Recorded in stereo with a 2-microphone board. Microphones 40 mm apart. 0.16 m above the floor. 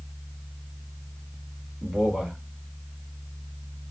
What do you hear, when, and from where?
1.8 s a man speaking: 15° right (ahead or behind), 1.2 m